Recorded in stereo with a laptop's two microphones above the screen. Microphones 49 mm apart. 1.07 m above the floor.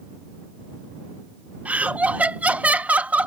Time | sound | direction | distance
1.6 | laughter | 30° right (ahead or behind) | ?